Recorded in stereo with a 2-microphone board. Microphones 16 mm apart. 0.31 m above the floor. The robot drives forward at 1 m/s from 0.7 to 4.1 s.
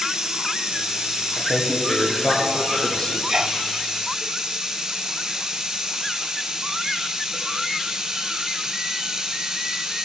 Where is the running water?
75° right (ahead or behind), 4.5 m; by 10.0 s 60° right (ahead or behind), 5.5 m.